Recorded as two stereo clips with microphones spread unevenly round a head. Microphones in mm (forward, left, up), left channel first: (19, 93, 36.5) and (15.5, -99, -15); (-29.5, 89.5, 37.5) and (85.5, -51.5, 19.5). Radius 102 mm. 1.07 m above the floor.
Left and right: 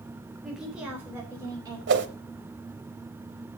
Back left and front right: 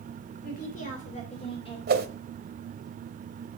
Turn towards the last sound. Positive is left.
turn(degrees=-75)